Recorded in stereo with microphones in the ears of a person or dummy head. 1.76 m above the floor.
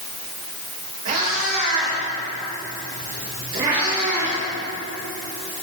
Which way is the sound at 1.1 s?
35° right (ahead or behind).